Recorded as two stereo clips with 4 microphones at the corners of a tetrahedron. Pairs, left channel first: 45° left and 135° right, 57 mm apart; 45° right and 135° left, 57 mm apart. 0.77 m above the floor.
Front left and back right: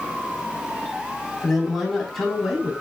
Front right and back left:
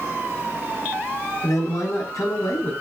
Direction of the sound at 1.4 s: 40° right.